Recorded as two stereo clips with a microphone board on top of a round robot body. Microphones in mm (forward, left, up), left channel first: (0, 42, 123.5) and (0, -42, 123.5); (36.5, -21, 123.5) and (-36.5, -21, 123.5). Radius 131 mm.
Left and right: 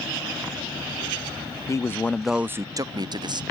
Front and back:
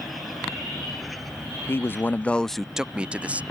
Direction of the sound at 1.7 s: 50° left.